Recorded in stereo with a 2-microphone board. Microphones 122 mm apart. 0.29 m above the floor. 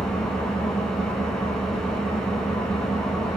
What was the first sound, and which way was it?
An engine running, 5° left (ahead or behind).